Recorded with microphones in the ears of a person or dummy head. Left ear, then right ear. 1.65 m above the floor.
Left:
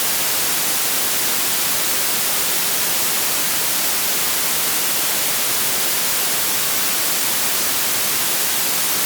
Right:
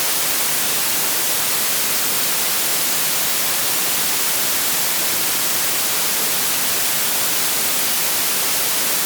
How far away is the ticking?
No ticking in this recording.